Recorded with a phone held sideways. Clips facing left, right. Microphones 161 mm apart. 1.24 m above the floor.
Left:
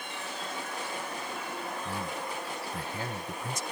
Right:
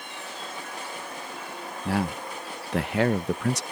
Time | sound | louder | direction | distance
1.9 | a man speaking | right 7 dB | 75° right (ahead or behind) | ?